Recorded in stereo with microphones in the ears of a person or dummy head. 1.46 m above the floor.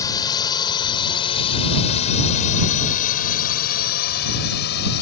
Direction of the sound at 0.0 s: 20° left (ahead or behind).